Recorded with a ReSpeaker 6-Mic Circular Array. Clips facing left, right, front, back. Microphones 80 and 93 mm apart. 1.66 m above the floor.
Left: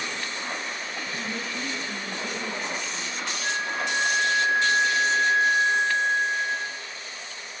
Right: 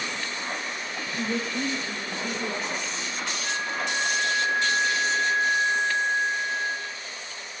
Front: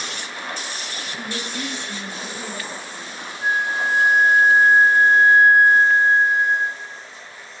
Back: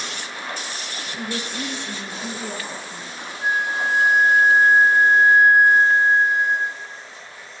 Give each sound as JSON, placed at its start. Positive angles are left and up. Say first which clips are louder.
{"t": 1.2, "sound": "a woman speaking", "louder": "right 7 dB, back 2 dB", "azimuth_deg": -130, "distance_m": 2.0}
{"t": 3.4, "sound": "a flute", "louder": "left 2 dB, front 1 dB", "azimuth_deg": 95, "distance_m": 1.4}